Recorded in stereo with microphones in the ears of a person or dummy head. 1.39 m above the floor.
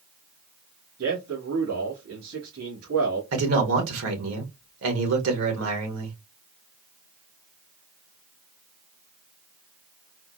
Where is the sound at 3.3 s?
80° right, 1.4 m.